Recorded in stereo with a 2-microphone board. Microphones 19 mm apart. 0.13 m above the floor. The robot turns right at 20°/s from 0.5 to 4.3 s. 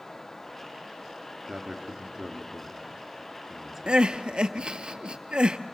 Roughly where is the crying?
Right.